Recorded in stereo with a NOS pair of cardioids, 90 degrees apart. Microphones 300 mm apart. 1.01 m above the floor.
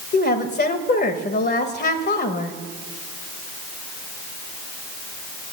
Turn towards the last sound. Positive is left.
turn(degrees=35)